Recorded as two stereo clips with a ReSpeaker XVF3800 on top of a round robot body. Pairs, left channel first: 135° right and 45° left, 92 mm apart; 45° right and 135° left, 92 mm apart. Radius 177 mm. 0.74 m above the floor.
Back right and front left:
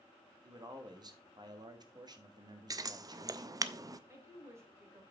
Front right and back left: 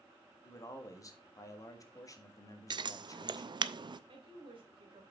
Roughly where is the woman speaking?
Left.